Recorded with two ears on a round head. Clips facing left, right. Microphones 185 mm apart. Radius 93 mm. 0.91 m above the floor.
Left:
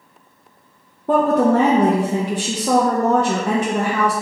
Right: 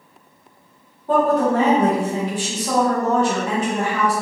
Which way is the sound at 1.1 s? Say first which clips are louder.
Left 2 dB; 45° left (ahead or behind).